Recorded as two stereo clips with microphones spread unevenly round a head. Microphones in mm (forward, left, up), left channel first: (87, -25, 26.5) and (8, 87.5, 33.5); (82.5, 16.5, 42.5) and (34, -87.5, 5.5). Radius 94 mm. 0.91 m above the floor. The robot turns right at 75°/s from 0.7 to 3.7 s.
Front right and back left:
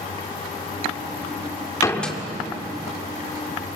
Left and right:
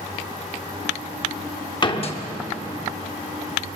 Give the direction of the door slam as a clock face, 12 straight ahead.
12 o'clock.